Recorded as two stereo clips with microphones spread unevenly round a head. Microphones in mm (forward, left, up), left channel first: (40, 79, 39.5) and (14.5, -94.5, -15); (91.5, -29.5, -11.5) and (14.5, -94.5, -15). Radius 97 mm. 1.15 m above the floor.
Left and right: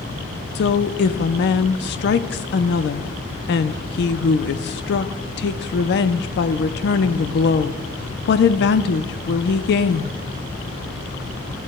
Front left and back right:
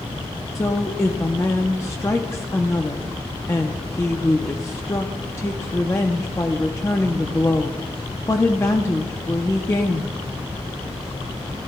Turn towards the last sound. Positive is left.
turn(degrees=105)